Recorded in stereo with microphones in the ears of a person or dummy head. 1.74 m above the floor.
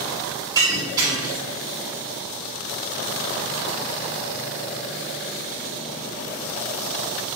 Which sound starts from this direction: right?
Breaking glass, at 0.6 s.